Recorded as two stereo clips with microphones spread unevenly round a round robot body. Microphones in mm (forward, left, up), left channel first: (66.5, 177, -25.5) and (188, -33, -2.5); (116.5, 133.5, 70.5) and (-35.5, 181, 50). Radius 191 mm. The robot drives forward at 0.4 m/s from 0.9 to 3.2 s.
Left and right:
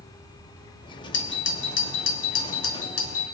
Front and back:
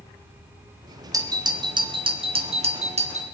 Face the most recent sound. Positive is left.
turn(degrees=130)